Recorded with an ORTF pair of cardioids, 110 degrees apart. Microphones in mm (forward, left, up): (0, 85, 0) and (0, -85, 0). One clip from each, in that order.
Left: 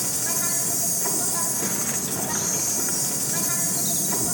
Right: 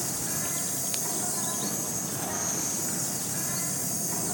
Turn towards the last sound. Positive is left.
turn(degrees=35)